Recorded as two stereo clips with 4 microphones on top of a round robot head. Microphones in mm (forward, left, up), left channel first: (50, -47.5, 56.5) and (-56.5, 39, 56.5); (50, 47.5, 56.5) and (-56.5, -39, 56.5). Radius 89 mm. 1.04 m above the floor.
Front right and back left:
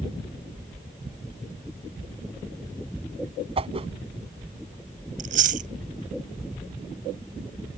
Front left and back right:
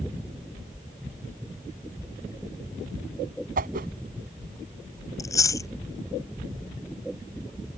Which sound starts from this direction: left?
Chewing, at 5.2 s.